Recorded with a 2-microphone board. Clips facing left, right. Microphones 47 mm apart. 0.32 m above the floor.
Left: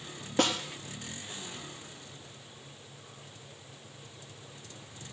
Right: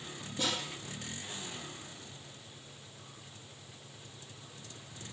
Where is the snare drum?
65° left (ahead or behind), 2.5 m.